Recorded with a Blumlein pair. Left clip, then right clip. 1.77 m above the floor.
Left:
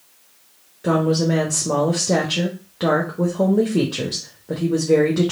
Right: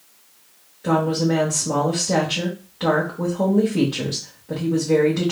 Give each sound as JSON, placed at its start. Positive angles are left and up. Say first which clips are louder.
{"t": 0.8, "sound": "a woman speaking", "louder": "left 1 dB", "azimuth_deg": 70, "distance_m": 1.1}